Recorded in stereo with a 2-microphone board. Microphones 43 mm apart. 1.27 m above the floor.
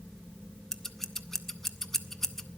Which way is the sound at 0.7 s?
10° left (ahead or behind).